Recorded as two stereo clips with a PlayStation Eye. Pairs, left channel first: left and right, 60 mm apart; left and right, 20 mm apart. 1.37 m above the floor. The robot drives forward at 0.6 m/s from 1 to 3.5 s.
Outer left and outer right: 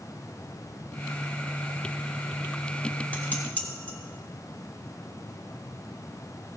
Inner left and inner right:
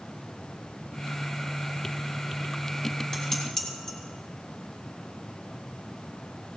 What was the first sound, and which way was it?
Dishes clattering, 25° left (ahead or behind).